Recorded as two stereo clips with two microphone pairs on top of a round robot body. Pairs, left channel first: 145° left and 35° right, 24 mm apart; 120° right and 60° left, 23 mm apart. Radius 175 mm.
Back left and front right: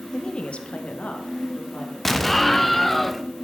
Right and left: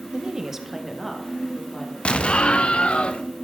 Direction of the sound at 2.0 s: 130° right.